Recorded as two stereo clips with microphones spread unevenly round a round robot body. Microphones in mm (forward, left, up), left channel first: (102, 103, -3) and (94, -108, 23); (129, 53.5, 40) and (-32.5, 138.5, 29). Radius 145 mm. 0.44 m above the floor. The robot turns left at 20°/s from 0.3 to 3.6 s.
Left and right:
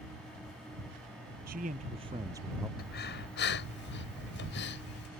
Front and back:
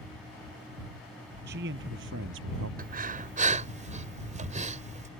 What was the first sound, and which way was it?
A man speaking, 155° right.